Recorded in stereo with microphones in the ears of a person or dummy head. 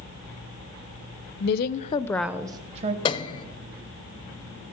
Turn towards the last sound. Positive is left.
turn(degrees=25)  # may be behind; listen again after turning